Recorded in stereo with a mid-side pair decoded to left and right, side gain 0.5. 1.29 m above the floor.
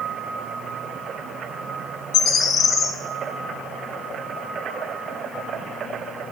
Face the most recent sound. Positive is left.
turn(degrees=55)